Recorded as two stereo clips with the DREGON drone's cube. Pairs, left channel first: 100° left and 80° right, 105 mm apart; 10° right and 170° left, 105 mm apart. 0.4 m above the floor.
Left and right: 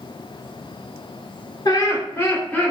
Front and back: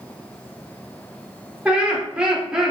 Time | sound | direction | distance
1.6 | laughter | 100° left | 1.0 m